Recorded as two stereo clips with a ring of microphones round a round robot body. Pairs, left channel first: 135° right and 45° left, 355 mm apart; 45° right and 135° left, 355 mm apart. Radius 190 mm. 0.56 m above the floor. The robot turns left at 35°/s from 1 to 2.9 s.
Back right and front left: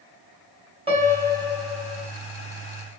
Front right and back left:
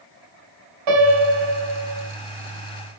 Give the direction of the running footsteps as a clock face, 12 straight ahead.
I don't hear running footsteps.